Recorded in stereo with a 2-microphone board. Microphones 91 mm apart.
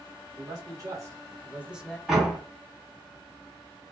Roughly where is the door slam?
Centre.